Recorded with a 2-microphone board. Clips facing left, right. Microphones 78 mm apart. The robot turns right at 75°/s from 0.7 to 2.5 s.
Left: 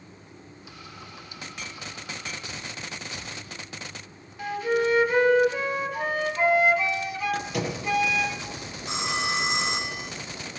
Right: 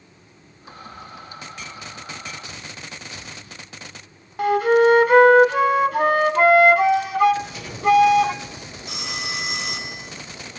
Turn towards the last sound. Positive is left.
turn(degrees=30)  # may be behind; listen again after turning